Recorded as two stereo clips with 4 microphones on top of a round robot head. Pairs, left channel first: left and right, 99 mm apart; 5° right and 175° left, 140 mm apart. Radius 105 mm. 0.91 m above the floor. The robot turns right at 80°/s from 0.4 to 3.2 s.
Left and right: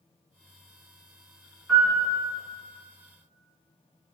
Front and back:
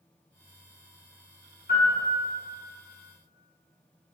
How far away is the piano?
About 1.4 m.